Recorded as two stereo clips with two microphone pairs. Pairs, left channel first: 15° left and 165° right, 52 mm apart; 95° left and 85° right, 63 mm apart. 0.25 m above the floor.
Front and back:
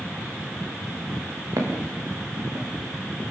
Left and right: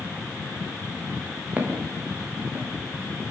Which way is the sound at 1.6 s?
145° right.